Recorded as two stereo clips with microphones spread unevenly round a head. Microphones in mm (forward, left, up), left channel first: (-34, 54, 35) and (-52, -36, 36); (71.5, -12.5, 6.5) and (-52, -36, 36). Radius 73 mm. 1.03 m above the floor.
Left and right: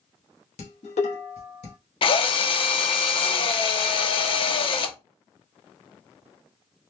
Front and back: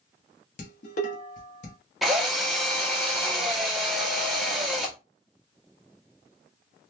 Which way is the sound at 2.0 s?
105° left.